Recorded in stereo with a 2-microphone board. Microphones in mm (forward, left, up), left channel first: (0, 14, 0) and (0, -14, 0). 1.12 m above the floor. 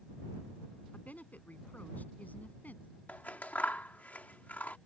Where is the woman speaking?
65° left (ahead or behind); by 2.9 s 70° left (ahead or behind).